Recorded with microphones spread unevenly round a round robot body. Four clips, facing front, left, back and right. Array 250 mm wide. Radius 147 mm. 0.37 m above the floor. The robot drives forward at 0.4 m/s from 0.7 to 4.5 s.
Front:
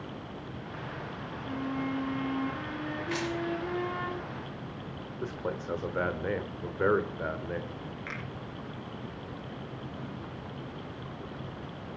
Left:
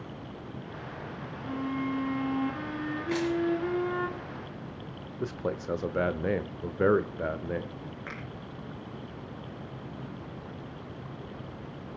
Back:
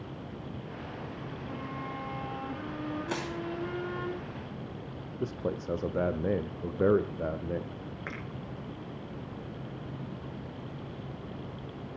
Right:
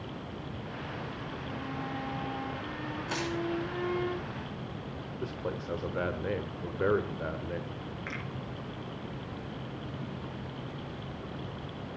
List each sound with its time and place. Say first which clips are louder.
1.4 s a violin: left 8 dB, front 7 dB; 95° left, 3 m; by 4.1 s 115° left, 3.5 m
3.1 s crushing: left 7 dB, front 2 dB; straight behind, 4 m
5.2 s a man speaking: left 4 dB, back 2 dB; 120° left, 1.0 m
8.1 s a finger snap: right 2 dB, back 2 dB; 165° left, 6 m